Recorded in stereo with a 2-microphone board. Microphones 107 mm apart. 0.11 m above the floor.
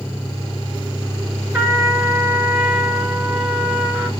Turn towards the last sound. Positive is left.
turn(degrees=-10)  # may be behind; listen again after turning